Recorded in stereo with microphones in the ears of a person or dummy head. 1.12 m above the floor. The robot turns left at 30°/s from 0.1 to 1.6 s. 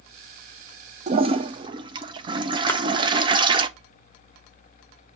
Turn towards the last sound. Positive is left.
turn(degrees=10)  # may be behind; listen again after turning